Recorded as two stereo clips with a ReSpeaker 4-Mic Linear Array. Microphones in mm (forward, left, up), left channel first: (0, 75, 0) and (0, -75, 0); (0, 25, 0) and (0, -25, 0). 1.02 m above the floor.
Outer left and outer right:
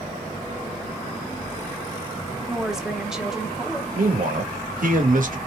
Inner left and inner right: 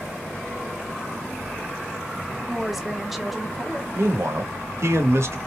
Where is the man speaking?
60° right (ahead or behind), 1.3 m.